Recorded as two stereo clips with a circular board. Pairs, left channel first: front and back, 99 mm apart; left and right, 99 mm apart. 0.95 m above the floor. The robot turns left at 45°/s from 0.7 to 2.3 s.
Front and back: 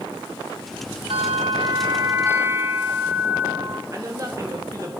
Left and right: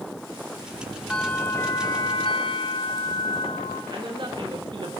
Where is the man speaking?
125° right, 1.3 m.